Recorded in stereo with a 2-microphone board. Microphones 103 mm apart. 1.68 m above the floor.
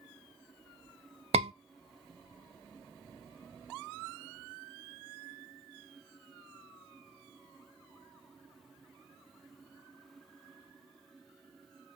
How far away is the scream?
About 0.7 m.